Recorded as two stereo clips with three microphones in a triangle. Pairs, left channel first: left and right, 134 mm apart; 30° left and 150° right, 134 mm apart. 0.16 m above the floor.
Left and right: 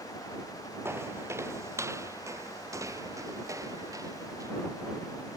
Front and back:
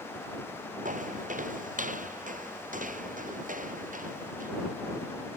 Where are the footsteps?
160° right; by 4.5 s 155° right.